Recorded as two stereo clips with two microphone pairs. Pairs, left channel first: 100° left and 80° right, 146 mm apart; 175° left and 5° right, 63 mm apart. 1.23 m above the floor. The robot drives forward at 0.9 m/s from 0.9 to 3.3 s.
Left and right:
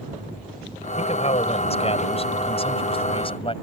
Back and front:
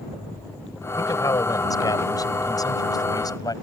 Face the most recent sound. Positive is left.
turn(degrees=155)